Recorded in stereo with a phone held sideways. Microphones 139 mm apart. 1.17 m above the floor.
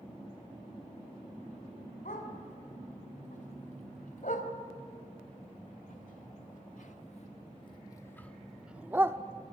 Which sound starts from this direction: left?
A dog barking, at 2.0 s.